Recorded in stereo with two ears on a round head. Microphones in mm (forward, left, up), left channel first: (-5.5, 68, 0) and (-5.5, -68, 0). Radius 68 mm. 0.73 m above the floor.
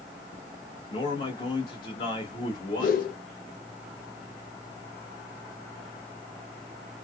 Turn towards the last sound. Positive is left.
turn(degrees=60)  # may be behind; listen again after turning